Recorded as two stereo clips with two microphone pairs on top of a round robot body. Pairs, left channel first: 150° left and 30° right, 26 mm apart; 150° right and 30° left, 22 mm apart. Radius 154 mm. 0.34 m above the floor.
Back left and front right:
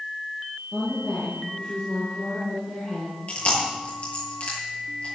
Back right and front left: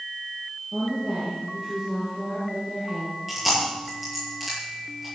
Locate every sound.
0.7 s a woman speaking: 110° left, 9.5 m; by 3.2 s 90° left, 7.5 m
3.3 s chewing: 110° left, 9 m